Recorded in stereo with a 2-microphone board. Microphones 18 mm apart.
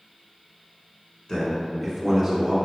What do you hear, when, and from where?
1.3 s a man speaking: 35° left (ahead or behind), 1.5 m; by 2.5 s 20° right (ahead or behind), 1.6 m